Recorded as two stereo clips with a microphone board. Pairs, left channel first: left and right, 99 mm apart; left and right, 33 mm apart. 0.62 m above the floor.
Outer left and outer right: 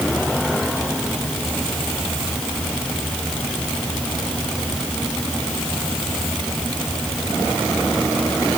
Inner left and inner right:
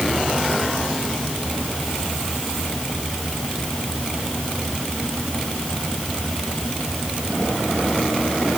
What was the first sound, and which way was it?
Only background noise.